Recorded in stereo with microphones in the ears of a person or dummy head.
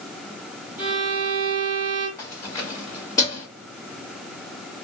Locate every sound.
0.8 s a violin: 10° right (ahead or behind), 2.5 m
2.2 s keys jangling: 15° left (ahead or behind), 2.5 m